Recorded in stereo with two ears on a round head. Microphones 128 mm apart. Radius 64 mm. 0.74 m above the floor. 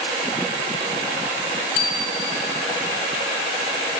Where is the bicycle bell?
80° left, 4 m.